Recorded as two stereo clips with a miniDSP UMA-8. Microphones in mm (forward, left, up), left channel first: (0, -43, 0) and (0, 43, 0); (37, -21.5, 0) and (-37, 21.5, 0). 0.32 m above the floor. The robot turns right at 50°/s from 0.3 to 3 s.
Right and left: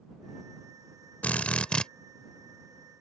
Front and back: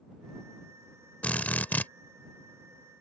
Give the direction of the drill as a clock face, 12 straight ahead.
2 o'clock.